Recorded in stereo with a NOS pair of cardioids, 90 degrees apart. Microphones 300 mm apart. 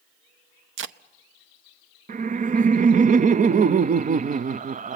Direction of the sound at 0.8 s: 45° right.